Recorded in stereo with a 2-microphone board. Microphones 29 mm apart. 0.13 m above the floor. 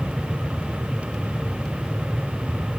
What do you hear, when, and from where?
Only background noise.